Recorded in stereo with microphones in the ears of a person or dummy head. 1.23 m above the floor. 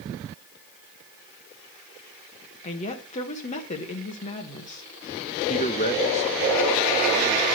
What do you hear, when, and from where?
2.6 s a woman speaking: 40° left (ahead or behind), 1.1 m
5.5 s a man speaking: 30° left (ahead or behind), 0.5 m